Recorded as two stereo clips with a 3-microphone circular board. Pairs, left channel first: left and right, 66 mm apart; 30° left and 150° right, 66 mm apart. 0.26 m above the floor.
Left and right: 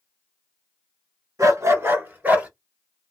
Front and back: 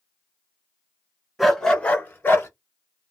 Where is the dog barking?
60° right, 1.0 m; by 2.5 s 25° right, 1.6 m.